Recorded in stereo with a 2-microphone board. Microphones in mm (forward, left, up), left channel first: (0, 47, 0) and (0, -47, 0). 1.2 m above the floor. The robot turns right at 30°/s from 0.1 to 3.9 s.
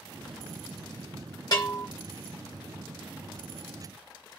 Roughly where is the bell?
Left.